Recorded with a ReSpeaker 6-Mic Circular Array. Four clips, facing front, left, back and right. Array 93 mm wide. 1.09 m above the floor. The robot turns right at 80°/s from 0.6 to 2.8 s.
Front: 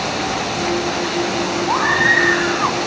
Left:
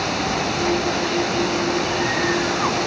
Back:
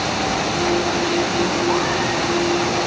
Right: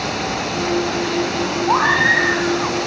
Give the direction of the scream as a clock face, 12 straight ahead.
2 o'clock.